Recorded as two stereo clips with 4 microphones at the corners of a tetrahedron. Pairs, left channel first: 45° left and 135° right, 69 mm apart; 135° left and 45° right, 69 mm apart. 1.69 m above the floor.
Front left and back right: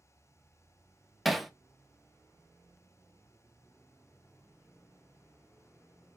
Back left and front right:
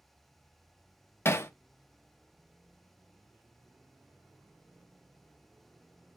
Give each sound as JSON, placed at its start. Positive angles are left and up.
{"t": 1.2, "sound": "hammering", "azimuth_deg": 135, "distance_m": 0.6}